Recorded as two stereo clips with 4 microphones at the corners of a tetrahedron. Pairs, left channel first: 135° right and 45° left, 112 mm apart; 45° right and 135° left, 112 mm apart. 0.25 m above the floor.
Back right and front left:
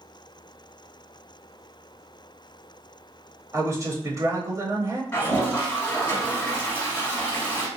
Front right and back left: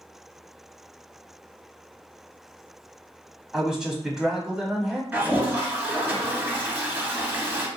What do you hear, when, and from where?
3.5 s a man speaking: 60° left, 1.0 m
5.1 s a toilet flushing: 170° right, 1.5 m